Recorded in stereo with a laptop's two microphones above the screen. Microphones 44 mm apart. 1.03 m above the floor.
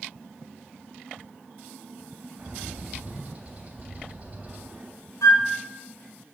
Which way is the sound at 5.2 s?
85° left.